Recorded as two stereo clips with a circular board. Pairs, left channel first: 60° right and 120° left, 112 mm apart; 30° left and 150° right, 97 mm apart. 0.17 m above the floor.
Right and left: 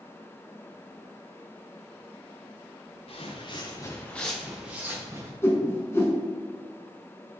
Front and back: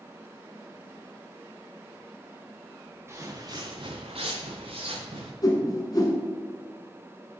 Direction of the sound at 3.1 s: 85° right.